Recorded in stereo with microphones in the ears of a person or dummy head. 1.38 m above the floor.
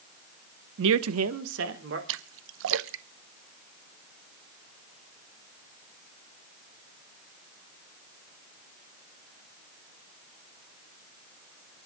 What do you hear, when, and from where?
0.8 s a man speaking: 70° right (ahead or behind), 0.9 m; by 2.0 s 65° right (ahead or behind), 2.5 m
2.1 s a splash: 70° right (ahead or behind), 0.8 m